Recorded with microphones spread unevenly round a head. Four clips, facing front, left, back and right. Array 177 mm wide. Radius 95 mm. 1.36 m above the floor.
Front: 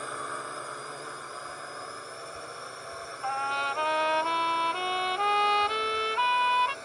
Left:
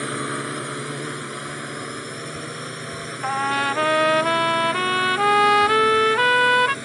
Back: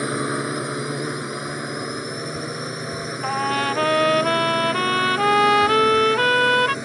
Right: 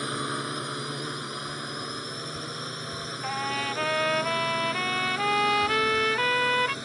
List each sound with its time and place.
0.0 s a drone: 160° left; by 6.8 s 165° left
3.2 s a trumpet: 140° left